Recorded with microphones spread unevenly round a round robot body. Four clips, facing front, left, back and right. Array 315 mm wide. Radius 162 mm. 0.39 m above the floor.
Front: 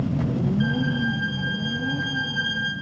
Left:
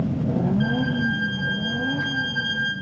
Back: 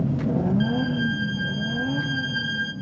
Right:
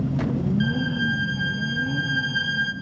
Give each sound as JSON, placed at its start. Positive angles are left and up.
{"t": 0.6, "sound": "a violin", "azimuth_deg": -125, "distance_m": 2.5}